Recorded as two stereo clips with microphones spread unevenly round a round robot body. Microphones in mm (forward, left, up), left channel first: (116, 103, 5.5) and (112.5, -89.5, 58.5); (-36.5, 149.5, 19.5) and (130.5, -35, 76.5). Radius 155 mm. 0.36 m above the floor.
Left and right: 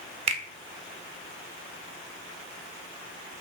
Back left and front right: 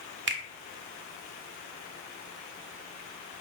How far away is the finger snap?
About 0.8 m.